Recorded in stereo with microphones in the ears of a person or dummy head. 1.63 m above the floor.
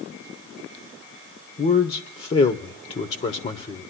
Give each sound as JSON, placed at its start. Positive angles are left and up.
{"t": 1.6, "sound": "a man speaking", "side_deg": 35, "distance_m": 0.7}